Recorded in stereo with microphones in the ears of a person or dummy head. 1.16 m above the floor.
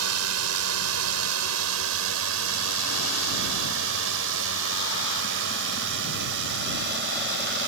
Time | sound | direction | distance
0.0 | a drone | 75° right (ahead or behind) | ?